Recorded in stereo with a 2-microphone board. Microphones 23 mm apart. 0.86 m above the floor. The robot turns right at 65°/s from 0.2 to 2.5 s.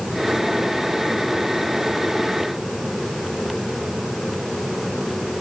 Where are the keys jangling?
I don't hear keys jangling.